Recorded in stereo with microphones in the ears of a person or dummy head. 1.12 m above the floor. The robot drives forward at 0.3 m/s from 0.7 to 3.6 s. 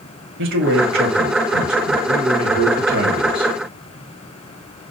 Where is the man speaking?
60° right (ahead or behind), 0.9 m; by 3.5 s 45° right (ahead or behind), 1.1 m.